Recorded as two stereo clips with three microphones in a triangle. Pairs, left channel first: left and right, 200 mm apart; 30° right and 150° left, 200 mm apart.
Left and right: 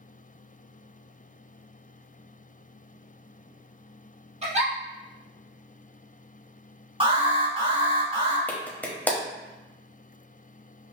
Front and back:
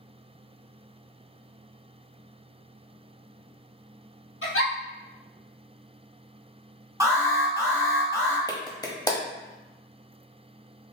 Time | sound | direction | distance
4.4 | a giggle | 30° right | 1.5 m
7.0 | an alarm | 140° right | 1.7 m
8.5 | a clap | 20° left | 0.8 m